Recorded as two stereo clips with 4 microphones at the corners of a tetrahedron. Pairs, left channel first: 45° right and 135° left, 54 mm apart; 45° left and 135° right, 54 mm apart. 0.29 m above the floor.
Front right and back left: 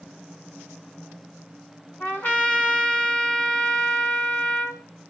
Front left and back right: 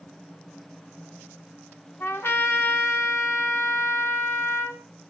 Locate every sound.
2.0 s a trumpet: 5° left, 2.5 m